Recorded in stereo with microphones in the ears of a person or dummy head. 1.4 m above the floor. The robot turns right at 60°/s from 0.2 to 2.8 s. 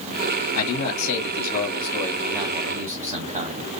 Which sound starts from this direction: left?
A man speaking, at 0.6 s.